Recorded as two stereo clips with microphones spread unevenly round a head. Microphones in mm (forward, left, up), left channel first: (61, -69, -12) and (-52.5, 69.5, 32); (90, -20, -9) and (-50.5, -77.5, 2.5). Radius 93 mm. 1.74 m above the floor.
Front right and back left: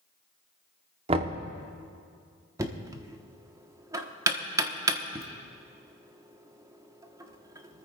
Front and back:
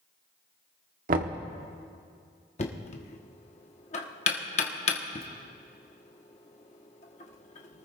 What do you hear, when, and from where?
1.1 s knocking: 175° left, 0.9 m
2.6 s knocking: 70° left, 1.1 m